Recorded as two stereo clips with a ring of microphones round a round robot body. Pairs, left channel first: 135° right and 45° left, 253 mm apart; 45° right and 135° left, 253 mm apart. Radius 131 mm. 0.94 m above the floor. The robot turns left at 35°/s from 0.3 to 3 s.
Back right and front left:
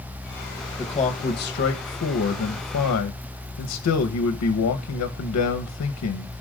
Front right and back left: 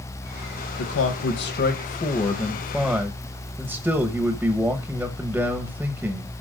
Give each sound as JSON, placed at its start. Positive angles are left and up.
{"t": 0.8, "sound": "a man speaking", "azimuth_deg": -65, "distance_m": 1.0}